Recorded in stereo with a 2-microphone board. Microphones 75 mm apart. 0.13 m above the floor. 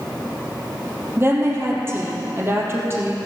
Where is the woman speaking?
30° right (ahead or behind), 3 m.